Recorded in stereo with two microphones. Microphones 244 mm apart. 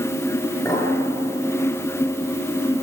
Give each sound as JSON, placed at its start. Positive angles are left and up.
{"t": 0.7, "sound": "a clink", "side_deg": 15, "distance_m": 7.0}